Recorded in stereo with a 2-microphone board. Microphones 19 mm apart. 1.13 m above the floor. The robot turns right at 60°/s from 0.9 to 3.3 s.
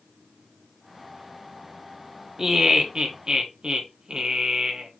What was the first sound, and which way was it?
Laughter, 150° right.